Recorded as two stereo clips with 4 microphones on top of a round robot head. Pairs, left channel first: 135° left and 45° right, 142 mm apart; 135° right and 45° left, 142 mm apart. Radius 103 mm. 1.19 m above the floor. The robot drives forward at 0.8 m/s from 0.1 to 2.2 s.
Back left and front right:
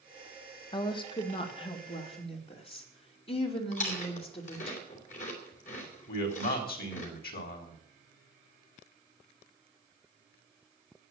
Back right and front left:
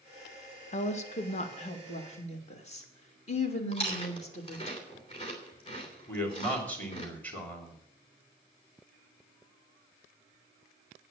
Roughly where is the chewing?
Behind.